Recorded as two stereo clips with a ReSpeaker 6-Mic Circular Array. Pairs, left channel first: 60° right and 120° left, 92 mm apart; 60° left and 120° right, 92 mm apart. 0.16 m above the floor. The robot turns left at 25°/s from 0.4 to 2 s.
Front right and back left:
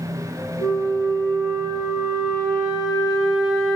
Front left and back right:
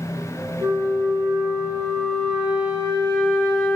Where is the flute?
60° left, 1.8 m; by 3.8 s 25° left, 1.8 m.